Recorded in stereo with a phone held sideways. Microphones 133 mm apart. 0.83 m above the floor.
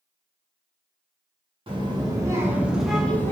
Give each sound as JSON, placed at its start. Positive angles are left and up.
{"t": 1.7, "sound": "a child speaking", "side_deg": -40, "distance_m": 1.0}